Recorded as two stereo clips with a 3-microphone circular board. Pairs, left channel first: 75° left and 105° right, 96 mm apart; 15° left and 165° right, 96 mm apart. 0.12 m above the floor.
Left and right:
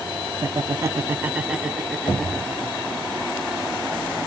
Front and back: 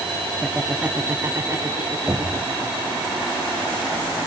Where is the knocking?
115° left, 4.5 m.